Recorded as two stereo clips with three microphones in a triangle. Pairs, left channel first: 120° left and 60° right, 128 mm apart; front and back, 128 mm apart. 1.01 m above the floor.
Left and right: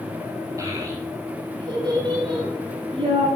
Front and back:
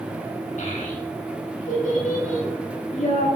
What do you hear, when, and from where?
0.6 s a child speaking: 5° left, 6 m; by 3.3 s 15° right, 9.5 m